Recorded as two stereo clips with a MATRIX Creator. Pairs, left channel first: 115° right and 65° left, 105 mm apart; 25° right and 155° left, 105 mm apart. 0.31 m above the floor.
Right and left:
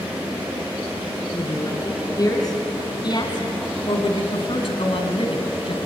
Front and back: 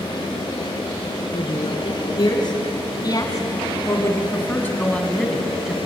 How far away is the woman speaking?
About 5 m.